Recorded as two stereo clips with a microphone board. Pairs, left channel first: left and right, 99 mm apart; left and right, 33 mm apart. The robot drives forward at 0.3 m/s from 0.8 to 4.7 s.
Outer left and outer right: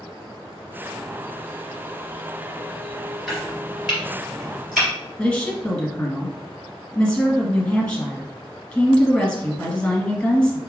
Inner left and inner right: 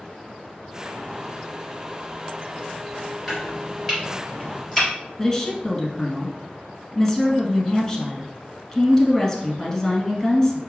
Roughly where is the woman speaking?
Centre.